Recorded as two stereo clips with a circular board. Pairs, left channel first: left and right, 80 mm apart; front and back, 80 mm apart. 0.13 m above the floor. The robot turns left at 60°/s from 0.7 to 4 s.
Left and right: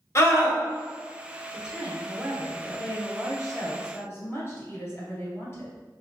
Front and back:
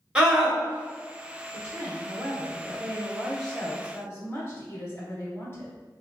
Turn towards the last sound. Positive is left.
turn(degrees=50)